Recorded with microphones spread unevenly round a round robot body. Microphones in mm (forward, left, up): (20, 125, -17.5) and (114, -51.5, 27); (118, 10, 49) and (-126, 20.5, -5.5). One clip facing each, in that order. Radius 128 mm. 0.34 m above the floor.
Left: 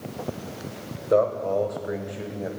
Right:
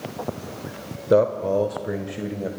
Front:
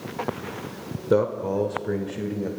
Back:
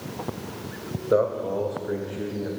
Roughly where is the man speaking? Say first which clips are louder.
Right 3 dB, front 1 dB; ahead right.